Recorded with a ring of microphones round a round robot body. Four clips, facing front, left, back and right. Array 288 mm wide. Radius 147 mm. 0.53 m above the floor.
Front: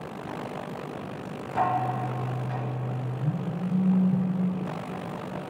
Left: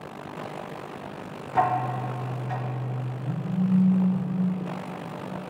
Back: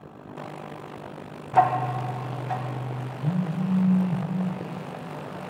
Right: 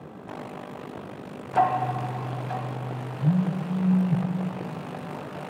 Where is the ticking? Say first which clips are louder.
Right 1 dB, back 5 dB; 170° right, 1.0 m.